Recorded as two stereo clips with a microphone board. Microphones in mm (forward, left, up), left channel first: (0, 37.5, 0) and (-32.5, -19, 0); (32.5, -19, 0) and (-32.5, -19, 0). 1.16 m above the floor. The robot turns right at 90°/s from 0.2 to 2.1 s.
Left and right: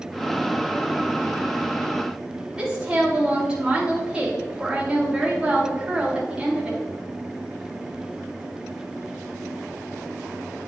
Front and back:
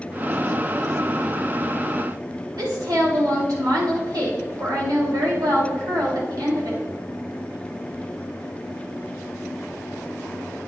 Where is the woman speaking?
165° left, 2.5 m.